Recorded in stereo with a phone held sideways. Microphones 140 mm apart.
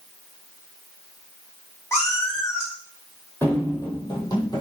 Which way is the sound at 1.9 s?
20° left (ahead or behind).